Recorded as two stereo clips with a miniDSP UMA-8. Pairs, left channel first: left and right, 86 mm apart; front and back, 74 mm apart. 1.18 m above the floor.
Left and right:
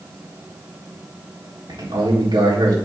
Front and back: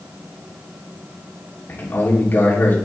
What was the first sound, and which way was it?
A man speaking, 65° right.